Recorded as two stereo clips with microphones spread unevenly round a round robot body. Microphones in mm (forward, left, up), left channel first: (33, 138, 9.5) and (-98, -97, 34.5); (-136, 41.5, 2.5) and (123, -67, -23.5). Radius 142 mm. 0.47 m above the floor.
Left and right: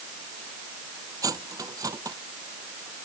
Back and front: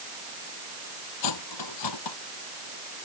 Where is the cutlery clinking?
165° left.